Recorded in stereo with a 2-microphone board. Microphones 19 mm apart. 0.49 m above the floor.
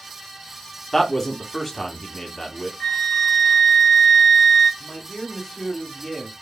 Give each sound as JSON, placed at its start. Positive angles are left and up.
{"t": 0.9, "sound": "a man speaking", "side_deg": 25, "distance_m": 1.0}
{"t": 2.8, "sound": "a flute", "side_deg": 30, "distance_m": 1.3}
{"t": 4.8, "sound": "a man speaking", "side_deg": 15, "distance_m": 0.9}